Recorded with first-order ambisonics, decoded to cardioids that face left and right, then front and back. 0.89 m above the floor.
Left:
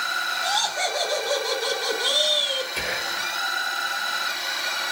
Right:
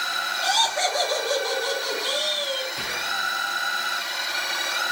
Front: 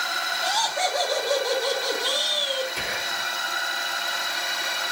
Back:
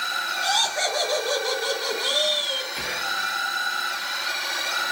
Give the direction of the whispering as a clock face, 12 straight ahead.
9 o'clock.